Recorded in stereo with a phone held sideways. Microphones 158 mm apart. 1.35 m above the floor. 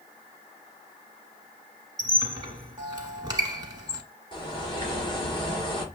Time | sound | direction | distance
2.0 | a squeak | 25° right (ahead or behind) | 1.3 m
4.3 | a bird | 30° left (ahead or behind) | 1.4 m